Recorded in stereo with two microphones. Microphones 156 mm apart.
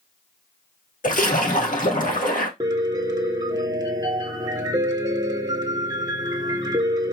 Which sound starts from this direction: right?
A piano, at 2.6 s.